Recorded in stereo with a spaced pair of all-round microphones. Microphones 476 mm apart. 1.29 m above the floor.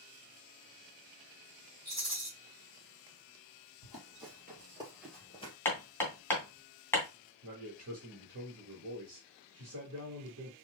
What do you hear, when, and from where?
1.9 s a rattle: 35° right (ahead or behind), 2.5 m
3.8 s running footsteps: 35° right (ahead or behind), 2 m; by 5.5 s 15° left (ahead or behind), 1.7 m
5.7 s hammering: 5° left (ahead or behind), 2 m
7.4 s a man speaking: 40° right (ahead or behind), 2.0 m